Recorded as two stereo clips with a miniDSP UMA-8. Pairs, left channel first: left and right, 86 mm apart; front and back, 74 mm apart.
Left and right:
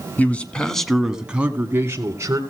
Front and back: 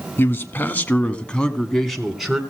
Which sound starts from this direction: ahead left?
A man speaking, at 0.2 s.